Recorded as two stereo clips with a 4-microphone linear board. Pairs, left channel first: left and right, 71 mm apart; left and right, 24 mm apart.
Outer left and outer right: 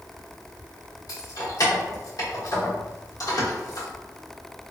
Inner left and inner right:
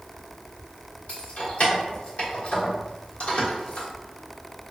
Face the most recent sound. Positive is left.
turn(degrees=60)  # may be behind; listen again after turning